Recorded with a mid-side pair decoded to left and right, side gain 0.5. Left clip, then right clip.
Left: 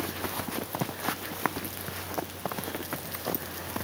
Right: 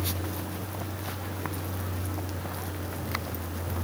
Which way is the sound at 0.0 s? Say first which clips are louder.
Left 1 dB; 65° right.